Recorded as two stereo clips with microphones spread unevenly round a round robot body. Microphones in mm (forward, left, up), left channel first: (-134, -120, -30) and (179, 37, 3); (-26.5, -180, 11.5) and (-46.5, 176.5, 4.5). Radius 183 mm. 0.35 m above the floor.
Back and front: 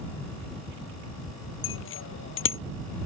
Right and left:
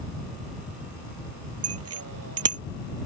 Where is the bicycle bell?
145° left.